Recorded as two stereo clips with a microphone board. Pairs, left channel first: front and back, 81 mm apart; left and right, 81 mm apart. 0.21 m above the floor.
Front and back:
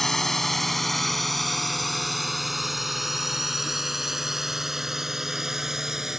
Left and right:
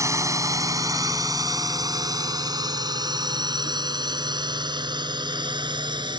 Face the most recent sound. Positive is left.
turn(degrees=-95)